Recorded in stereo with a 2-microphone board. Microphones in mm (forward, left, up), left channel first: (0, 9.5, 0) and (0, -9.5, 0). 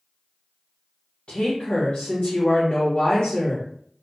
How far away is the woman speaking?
About 1.2 m.